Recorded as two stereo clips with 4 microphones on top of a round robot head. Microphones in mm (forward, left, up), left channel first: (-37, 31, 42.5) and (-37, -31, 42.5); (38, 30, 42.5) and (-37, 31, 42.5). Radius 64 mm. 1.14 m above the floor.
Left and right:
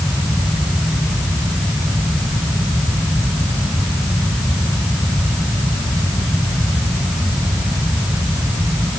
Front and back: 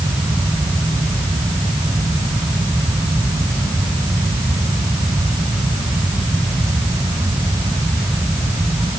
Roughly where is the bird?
I don't hear a bird.